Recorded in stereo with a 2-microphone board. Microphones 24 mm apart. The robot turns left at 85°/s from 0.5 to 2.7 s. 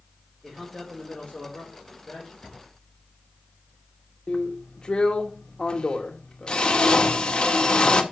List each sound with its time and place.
0.4 s a man speaking: 175° right, 4.5 m; by 2.3 s 30° left, 4.5 m
2.4 s a drawer: 25° left (ahead or behind), 5 m; by 2.6 s 5° left (ahead or behind), 5 m
4.3 s a drill: 40° left (ahead or behind), 1.4 m